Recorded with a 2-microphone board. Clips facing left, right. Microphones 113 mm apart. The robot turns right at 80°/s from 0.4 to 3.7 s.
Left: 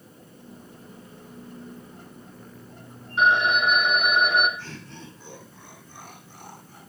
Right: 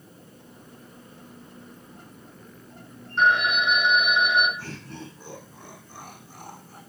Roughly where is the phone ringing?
Ahead.